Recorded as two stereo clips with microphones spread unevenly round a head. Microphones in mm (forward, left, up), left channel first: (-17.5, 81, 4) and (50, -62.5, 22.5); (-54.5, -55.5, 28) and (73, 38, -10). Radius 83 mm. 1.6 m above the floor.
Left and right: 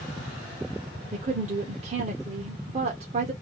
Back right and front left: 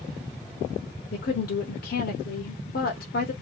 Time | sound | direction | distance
1.1 | a woman speaking | 115° right | 1.1 m